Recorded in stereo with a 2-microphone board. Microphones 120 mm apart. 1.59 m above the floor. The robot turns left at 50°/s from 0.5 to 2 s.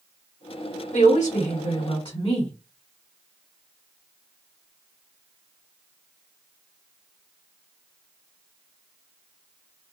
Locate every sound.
0.9 s a woman speaking: 95° left, 1.3 m; by 2.5 s 40° left, 1.3 m